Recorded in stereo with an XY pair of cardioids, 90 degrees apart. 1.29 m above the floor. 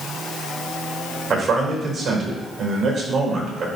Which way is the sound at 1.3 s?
50° right.